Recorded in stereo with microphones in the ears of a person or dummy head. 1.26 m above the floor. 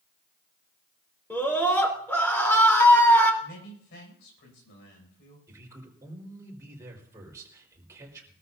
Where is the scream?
10° left (ahead or behind), 3.5 m.